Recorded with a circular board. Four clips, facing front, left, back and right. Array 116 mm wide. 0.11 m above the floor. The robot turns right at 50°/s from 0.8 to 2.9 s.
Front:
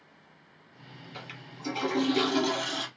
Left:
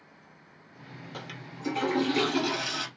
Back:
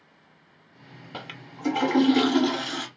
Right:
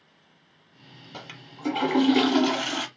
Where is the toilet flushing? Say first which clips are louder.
Right 1 dB, back 6 dB; 170° right, 0.5 m; by 2.9 s 85° right, 0.5 m.